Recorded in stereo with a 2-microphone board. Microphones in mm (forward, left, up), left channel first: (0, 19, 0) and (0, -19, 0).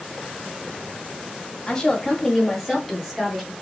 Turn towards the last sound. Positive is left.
turn(degrees=-10)  # may be behind; listen again after turning